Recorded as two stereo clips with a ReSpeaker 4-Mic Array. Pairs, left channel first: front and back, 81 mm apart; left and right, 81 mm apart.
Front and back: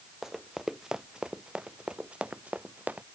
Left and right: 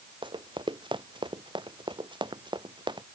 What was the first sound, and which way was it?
Running footsteps, 95° right.